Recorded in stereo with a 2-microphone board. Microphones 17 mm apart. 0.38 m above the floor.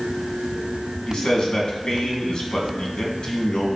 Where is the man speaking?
65° left (ahead or behind), 2.5 m.